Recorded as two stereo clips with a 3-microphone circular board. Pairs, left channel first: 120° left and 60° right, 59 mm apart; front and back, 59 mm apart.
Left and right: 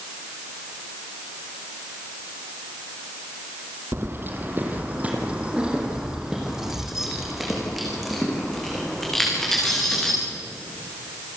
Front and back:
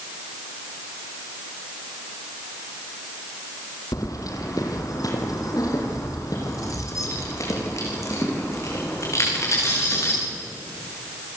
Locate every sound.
3.9 s keys jangling: 15° right, 3 m; by 10.2 s 40° left, 8 m